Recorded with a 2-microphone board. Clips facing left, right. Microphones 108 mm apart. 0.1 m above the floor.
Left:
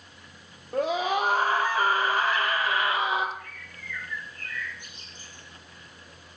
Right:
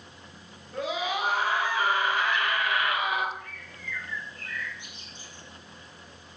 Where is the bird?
50° left (ahead or behind), 8 m.